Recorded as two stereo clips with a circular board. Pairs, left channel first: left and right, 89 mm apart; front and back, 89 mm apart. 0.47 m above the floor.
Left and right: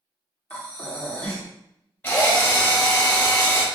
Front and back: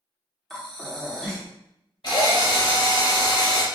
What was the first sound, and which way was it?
Breathing, 70° left.